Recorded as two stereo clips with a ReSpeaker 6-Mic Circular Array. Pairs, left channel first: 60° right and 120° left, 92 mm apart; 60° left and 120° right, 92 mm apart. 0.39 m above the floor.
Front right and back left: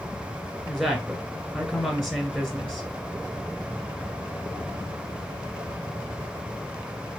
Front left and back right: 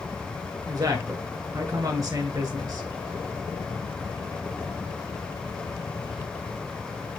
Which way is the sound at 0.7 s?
145° right.